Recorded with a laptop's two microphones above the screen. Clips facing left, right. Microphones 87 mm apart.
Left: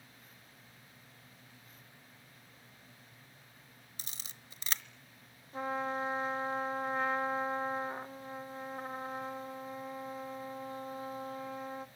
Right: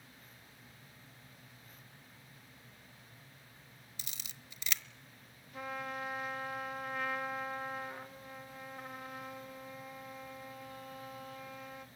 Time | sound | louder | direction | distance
4.0 | a camera shutter | even | 40° left (ahead or behind) | 1.0 m
5.5 | a trumpet | left 6 dB | 30° left (ahead or behind) | 1.0 m